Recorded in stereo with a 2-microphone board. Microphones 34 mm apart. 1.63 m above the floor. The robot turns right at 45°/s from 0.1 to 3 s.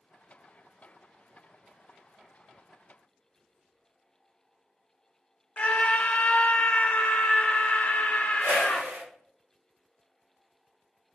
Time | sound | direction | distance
5.6 | a scream | 40° left (ahead or behind) | 1.1 m
8.4 | a whoosh | 70° right (ahead or behind) | 1.3 m